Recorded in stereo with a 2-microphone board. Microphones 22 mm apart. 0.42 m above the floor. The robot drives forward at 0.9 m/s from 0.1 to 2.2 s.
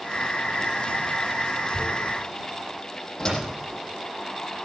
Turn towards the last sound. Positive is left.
turn(degrees=35)  # may be behind; listen again after turning